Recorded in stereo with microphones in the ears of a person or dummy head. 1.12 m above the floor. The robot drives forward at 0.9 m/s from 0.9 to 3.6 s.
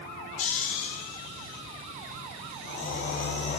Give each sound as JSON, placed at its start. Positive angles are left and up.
{"t": 0.4, "sound": "snoring", "side_deg": 45, "distance_m": 2.0}